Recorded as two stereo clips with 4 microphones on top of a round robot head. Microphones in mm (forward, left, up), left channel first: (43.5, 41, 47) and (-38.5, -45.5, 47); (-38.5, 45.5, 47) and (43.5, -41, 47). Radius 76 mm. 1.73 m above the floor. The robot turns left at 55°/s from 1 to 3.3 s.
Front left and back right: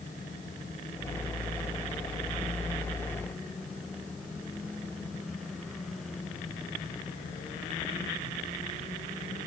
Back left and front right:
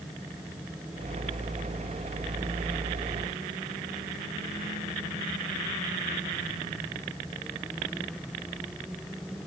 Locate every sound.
Only background noise.